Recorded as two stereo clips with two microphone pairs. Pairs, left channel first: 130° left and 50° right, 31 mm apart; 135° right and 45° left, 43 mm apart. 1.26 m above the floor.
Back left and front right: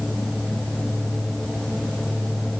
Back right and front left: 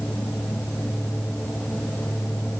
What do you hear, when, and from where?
Only background noise.